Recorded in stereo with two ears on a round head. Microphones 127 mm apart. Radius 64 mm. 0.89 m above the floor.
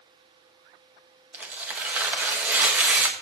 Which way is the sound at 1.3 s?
10° right (ahead or behind).